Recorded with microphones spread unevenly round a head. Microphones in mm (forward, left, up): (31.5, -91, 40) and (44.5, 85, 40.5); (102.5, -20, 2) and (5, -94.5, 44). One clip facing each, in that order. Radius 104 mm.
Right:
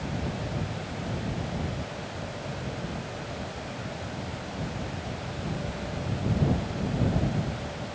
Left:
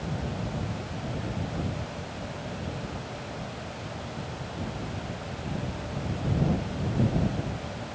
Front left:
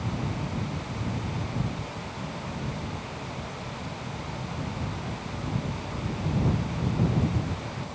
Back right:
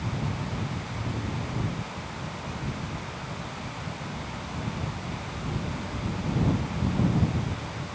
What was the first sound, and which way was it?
Only background noise.